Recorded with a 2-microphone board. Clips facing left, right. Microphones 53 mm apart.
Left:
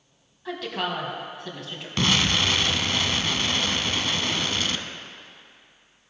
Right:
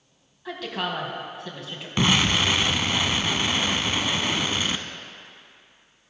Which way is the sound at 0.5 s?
Centre (ahead or behind).